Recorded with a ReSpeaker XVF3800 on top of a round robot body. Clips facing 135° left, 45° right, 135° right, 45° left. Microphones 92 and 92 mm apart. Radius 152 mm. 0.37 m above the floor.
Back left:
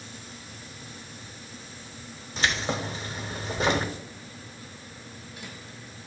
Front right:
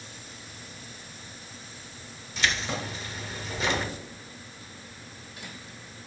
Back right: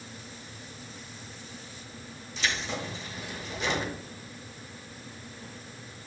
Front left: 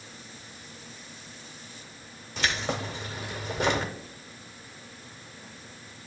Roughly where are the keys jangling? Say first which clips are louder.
Back left 2 dB, front left 3 dB; left.